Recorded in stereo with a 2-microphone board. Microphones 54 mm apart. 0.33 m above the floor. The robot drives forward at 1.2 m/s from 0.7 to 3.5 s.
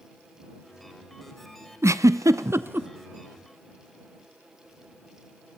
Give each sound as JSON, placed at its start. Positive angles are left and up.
{"t": 1.8, "sound": "a giggle", "side_deg": -60, "distance_m": 0.8}